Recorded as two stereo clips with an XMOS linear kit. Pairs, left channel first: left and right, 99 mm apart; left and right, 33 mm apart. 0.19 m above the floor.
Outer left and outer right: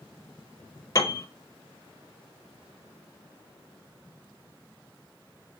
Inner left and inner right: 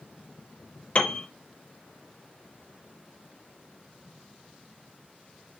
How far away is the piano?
About 0.8 m.